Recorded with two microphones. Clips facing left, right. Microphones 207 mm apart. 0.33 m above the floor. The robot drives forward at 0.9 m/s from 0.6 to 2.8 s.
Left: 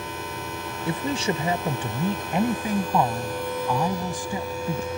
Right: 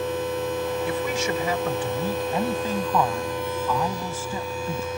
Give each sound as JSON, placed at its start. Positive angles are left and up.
{"t": 0.9, "sound": "a woman speaking", "side_deg": 30}